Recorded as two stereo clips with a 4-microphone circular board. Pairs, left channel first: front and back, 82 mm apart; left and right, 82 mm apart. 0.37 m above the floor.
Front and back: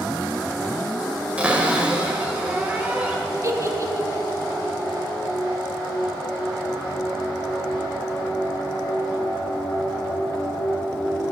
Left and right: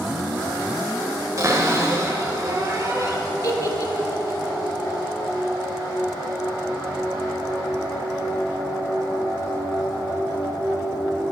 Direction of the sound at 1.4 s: 115° right.